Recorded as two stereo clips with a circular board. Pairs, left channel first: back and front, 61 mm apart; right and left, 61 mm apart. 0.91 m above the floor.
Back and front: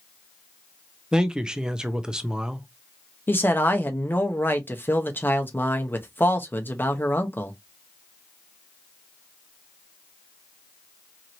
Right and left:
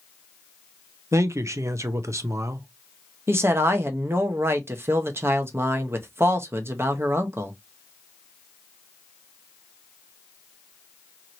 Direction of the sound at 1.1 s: 75° left.